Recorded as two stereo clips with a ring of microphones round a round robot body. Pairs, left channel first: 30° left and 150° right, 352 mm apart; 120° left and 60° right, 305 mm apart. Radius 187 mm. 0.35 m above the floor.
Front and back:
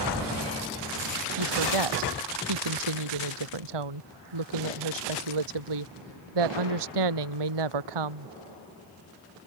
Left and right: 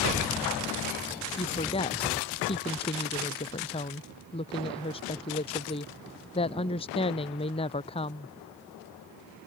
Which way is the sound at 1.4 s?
165° right.